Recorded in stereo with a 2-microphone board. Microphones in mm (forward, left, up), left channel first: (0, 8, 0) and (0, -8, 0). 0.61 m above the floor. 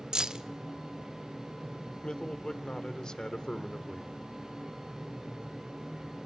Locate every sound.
0.1 s keys jangling: 50° right (ahead or behind), 0.6 m
2.0 s a man speaking: 55° left (ahead or behind), 1.4 m